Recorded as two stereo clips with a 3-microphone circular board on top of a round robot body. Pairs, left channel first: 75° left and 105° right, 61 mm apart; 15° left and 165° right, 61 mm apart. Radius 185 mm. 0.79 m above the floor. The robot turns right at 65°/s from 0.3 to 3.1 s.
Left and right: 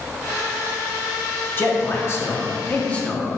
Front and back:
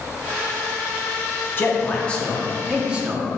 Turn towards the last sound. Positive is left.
turn(degrees=145)